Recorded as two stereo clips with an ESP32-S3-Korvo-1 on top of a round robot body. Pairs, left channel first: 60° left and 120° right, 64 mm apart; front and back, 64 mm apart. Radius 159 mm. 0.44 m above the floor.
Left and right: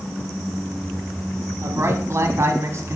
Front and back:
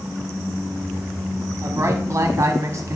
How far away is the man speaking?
About 1.1 m.